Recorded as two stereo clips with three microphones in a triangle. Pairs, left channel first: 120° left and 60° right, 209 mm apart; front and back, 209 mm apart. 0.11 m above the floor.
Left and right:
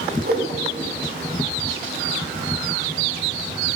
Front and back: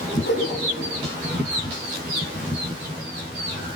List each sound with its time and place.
0.2 s a whoosh: 20° right, 2 m